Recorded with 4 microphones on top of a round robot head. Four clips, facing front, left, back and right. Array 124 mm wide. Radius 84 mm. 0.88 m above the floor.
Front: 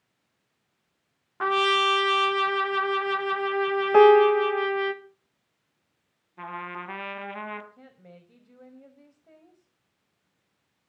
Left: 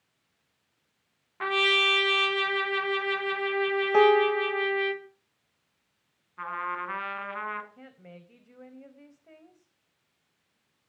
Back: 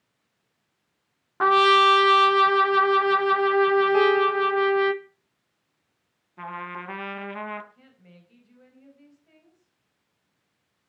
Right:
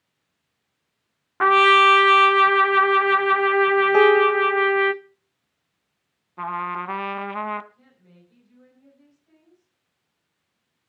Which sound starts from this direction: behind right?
A trumpet, at 1.4 s.